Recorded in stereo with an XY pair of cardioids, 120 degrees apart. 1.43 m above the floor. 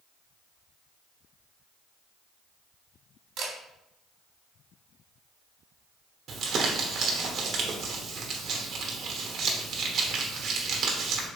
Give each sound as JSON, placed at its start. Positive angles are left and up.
{"t": 3.4, "sound": "a camera shutter", "azimuth_deg": -60, "distance_m": 1.3}
{"t": 6.3, "sound": "crumpling", "azimuth_deg": -50, "distance_m": 1.1}